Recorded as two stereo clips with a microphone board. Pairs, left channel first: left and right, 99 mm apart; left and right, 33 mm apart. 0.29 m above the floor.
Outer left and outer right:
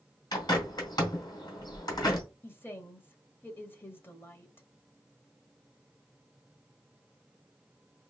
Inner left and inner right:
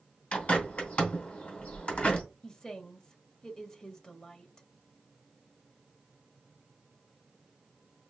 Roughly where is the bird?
Left.